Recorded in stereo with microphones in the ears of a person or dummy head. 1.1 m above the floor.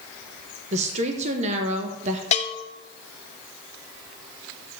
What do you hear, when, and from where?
0.7 s a woman speaking: 40° right (ahead or behind), 0.9 m
2.3 s a bell: 40° left (ahead or behind), 0.8 m